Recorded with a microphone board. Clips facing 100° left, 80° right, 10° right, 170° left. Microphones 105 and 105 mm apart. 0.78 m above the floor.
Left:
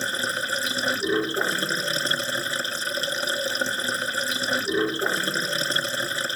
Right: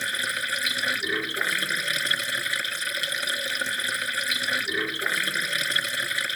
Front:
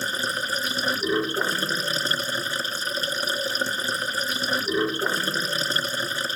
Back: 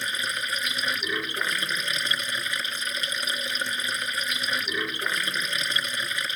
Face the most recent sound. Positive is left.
turn(degrees=45)